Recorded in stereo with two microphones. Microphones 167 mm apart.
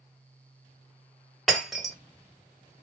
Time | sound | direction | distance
1.5 | breaking glass | centre (ahead or behind) | 1.3 m